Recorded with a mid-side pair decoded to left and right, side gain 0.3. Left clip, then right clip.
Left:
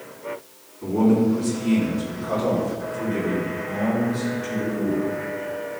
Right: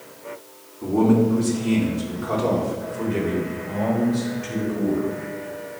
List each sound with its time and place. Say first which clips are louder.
0.8 s a man speaking: right 1 dB; 45° right, 3.5 m; by 5.1 s 50° right, 6.5 m